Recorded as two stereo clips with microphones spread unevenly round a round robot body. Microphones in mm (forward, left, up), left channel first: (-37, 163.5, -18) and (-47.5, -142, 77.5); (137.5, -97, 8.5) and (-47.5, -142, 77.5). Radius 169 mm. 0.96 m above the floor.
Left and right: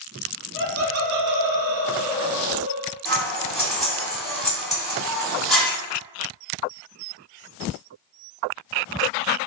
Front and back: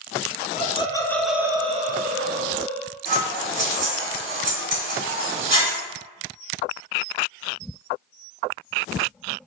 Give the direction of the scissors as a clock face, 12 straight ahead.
6 o'clock.